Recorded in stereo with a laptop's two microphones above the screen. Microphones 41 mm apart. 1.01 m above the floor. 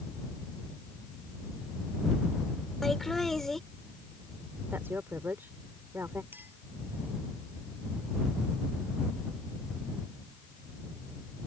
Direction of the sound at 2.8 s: 5° left (ahead or behind).